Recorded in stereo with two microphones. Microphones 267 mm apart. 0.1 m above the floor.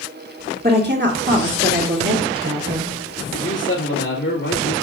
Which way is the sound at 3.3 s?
45° left (ahead or behind).